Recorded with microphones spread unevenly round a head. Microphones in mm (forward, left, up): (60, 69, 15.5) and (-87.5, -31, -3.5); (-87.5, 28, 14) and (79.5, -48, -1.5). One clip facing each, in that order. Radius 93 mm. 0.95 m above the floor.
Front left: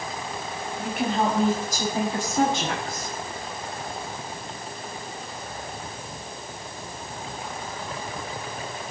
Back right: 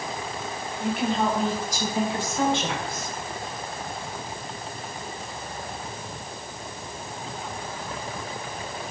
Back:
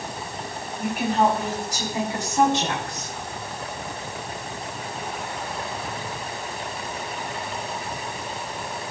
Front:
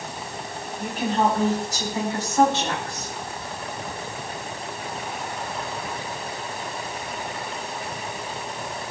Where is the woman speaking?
75° left, 6 m; by 3.1 s 85° left, 9 m.